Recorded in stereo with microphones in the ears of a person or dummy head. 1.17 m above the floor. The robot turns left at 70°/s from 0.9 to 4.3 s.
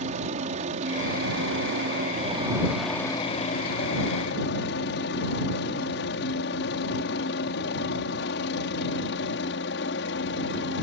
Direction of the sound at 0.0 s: 40° right (ahead or behind).